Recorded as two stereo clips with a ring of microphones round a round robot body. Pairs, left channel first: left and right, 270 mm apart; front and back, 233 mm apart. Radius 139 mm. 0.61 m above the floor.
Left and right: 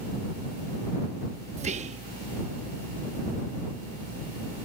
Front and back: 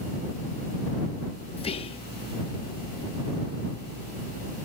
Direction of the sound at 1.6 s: 45° right.